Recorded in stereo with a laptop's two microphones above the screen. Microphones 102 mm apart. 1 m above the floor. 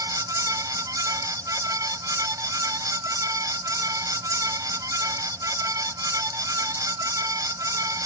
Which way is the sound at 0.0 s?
35° right (ahead or behind).